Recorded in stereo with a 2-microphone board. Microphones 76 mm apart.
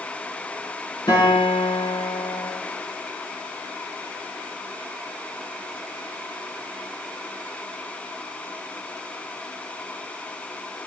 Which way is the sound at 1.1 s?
85° left.